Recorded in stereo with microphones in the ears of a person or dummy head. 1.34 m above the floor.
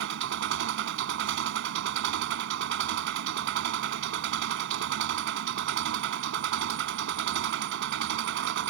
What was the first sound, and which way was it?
An engine running, 70° right (ahead or behind).